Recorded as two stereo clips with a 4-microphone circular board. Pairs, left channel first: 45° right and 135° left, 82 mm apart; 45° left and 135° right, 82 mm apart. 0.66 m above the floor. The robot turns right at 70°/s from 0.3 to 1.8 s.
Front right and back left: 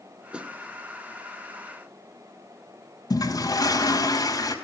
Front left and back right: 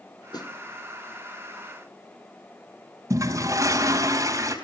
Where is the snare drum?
60° left, 2 m; by 0.6 s 75° left, 2 m.